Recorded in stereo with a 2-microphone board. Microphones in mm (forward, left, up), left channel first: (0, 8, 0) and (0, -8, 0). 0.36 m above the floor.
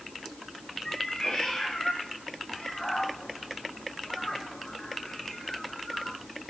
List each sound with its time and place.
0.8 s a cat meowing: 35° left (ahead or behind), 6 m; by 6.2 s 65° left (ahead or behind), 1.8 m